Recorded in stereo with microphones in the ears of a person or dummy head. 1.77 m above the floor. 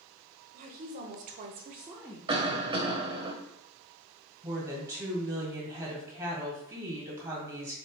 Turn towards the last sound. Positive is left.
turn(degrees=-15)  # may be behind; listen again after turning